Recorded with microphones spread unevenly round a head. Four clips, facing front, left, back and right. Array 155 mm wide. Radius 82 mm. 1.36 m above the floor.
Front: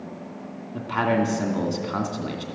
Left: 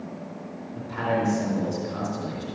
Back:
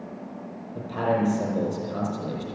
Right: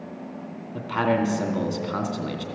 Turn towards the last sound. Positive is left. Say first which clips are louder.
# right 3 dB, front 2 dB
turn(degrees=-30)